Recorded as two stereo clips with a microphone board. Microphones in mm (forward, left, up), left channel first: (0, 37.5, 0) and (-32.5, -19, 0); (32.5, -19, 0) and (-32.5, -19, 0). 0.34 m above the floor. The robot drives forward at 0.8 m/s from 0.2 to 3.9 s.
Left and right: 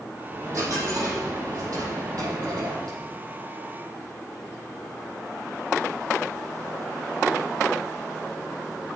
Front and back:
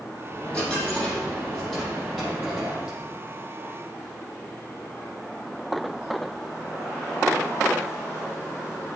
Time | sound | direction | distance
0.3 | a dropped coin | 75° right | 4.5 m